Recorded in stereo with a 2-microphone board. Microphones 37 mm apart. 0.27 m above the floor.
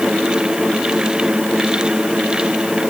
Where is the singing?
No singing in this recording.